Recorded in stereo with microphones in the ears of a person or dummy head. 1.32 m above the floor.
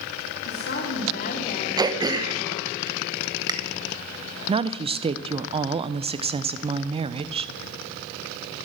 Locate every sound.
0.5 s a woman speaking: 60° left (ahead or behind), 3 m; by 2.7 s 30° left (ahead or behind), 4 m
1.8 s throat clearing: 20° right (ahead or behind), 0.9 m
4.5 s a woman speaking: 25° right (ahead or behind), 0.5 m